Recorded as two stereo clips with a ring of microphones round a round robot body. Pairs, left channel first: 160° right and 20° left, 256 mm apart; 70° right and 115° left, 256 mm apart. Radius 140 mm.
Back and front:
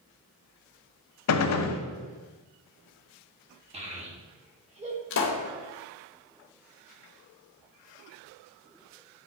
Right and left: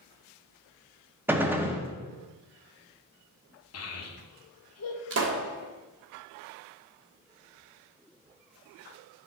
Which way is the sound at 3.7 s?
40° right.